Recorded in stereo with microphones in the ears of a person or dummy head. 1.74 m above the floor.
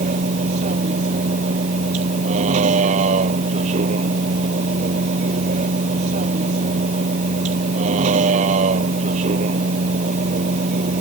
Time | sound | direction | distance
0.0 | a vehicle | 40° right (ahead or behind) | ?